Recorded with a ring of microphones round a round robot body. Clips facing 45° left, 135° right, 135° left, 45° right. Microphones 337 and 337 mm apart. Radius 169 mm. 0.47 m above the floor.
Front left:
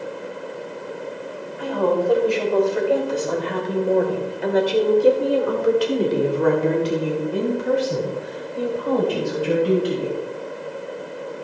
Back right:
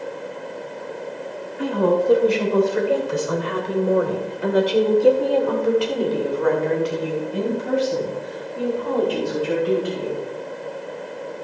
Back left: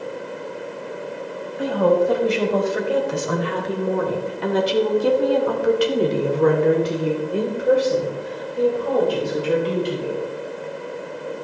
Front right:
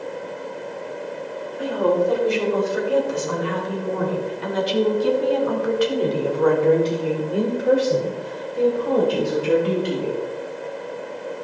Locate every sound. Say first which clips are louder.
1.6 s a woman speaking: back right 1 dB, back left 2 dB; 165° left, 3.5 m; by 10.2 s 25° left, 3 m